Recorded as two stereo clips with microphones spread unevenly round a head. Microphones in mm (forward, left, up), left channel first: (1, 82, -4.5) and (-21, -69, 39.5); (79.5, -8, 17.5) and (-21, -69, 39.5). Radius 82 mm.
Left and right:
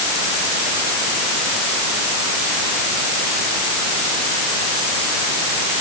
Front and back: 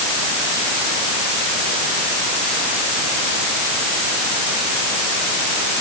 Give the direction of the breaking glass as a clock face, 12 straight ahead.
I don't hear breaking glass.